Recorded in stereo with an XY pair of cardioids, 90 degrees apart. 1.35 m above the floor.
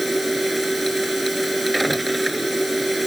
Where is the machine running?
15° right.